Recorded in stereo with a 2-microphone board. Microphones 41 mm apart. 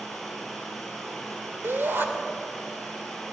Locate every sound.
0.0 s running water: 5° left (ahead or behind), 7.5 m
1.6 s a shout: 65° right (ahead or behind), 2.5 m